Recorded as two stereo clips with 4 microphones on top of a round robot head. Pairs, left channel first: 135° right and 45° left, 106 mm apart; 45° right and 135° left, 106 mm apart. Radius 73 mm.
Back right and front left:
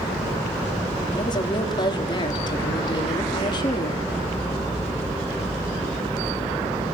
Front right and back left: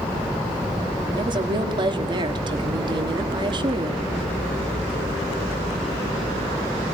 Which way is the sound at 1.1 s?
Straight behind.